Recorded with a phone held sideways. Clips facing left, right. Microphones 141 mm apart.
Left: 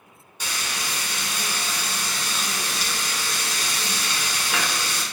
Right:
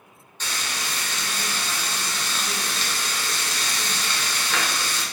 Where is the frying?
10° left (ahead or behind), 0.8 m.